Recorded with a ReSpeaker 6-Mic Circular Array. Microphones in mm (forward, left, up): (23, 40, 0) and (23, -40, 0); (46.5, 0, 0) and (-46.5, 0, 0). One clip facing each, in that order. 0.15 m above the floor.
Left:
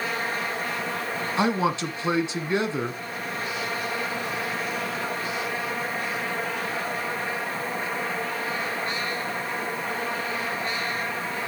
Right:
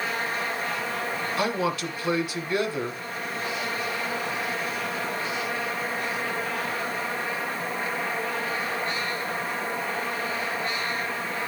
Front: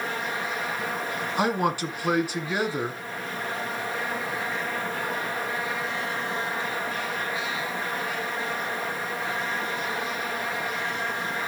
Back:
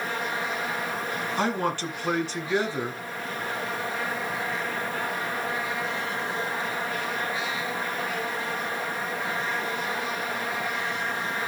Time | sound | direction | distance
1.4 | a man speaking | 65° left | 1.5 m